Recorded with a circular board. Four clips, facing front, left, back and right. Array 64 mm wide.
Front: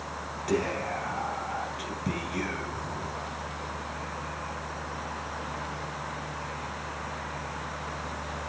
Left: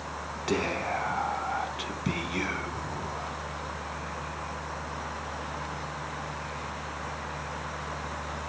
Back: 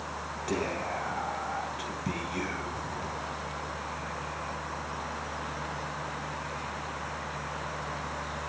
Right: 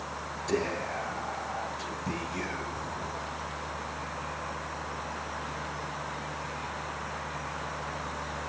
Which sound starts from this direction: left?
Whispering, at 0.5 s.